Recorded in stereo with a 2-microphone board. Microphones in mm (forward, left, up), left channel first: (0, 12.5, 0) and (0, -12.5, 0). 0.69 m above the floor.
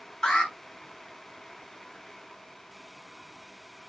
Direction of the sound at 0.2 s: 30° left (ahead or behind).